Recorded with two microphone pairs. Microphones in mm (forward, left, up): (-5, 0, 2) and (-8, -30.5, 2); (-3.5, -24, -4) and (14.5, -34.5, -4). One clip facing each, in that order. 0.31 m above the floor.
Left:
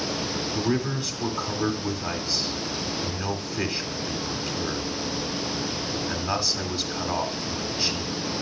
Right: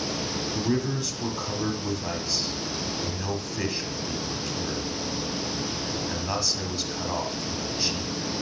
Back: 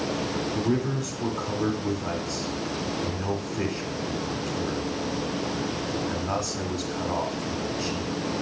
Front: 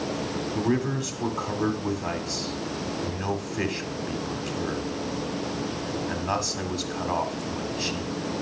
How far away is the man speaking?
About 1.7 m.